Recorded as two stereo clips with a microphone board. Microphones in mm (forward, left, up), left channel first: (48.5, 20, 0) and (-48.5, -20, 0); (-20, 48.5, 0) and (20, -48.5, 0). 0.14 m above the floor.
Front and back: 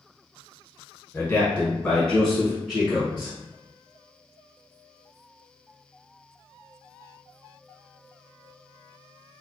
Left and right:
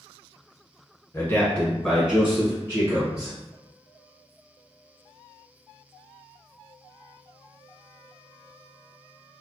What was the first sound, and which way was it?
A man speaking, 75° left.